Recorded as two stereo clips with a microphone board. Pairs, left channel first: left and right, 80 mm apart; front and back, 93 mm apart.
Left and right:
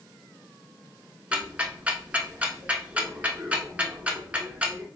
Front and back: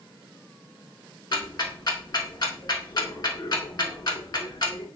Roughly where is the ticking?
Ahead.